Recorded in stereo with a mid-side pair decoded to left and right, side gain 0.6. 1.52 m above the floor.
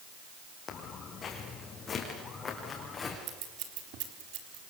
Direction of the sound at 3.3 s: 70° right.